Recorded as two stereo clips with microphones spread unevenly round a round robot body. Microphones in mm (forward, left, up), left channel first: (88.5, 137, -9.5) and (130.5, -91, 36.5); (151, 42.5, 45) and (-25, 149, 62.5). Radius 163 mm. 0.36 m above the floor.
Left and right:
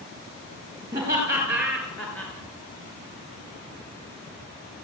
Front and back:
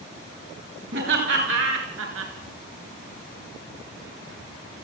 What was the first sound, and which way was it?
Laughter, 160° right.